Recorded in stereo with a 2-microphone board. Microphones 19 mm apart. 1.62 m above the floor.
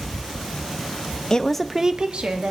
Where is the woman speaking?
35° left (ahead or behind), 0.7 m; by 2.5 s 70° right (ahead or behind), 1.1 m.